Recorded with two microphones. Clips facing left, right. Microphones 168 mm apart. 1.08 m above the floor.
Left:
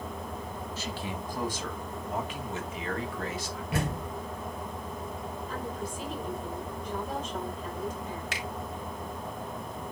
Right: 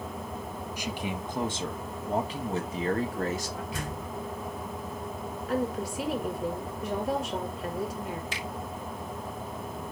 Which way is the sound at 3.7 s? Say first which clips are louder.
Left 4 dB; 70° left (ahead or behind).